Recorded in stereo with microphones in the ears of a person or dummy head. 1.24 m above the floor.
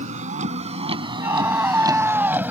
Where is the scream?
15° right (ahead or behind).